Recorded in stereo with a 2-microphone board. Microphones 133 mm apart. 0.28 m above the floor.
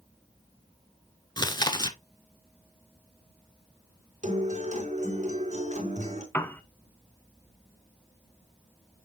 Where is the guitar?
65° right (ahead or behind), 3.5 m.